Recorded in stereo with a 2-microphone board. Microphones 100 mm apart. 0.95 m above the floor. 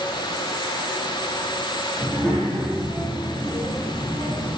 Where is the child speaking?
25° right (ahead or behind), 1.3 m.